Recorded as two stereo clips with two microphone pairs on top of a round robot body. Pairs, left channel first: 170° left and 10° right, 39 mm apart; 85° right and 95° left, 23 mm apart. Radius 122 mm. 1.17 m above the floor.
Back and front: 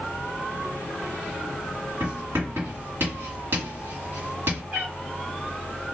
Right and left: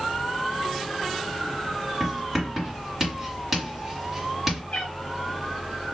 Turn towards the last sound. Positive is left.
turn(degrees=-65)